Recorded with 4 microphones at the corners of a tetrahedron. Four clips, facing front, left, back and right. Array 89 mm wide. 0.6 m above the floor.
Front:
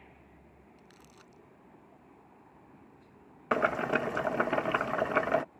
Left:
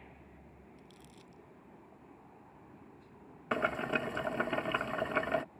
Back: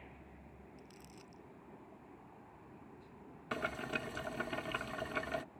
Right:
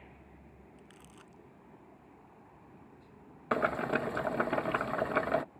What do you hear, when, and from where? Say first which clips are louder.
0.8 s crumpling: right 1 dB, even; 50° right
3.5 s boiling: right 2 dB, front 11 dB; 25° right